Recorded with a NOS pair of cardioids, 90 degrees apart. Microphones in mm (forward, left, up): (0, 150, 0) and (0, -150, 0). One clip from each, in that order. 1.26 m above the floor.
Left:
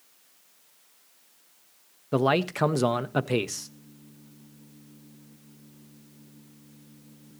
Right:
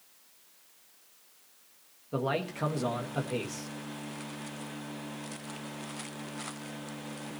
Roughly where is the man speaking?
Ahead left.